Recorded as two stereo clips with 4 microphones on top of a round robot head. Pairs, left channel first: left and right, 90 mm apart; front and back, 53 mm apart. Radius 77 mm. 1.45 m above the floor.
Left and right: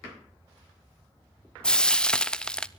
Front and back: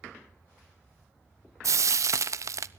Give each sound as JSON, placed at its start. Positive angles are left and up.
{"t": 1.6, "sound": "frying", "azimuth_deg": 170, "distance_m": 0.8}